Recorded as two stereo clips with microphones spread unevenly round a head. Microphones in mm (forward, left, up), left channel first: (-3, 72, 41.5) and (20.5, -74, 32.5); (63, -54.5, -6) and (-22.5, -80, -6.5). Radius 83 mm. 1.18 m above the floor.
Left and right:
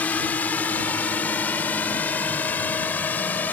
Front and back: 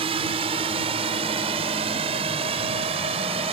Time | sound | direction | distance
0.0 | a drone | straight behind | ?